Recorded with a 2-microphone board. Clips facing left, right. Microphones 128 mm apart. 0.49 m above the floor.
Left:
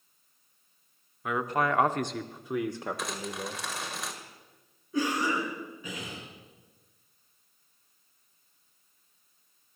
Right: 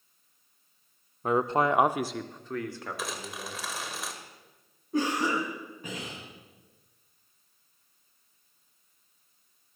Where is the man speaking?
35° right (ahead or behind), 0.8 m; by 3.6 s 30° left (ahead or behind), 1.4 m.